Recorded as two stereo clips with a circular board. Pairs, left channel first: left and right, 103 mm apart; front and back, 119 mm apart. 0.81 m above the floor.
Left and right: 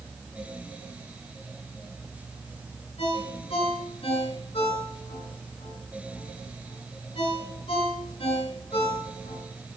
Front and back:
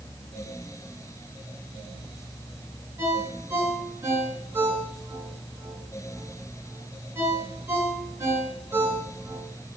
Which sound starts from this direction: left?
A ringtone, at 3.0 s.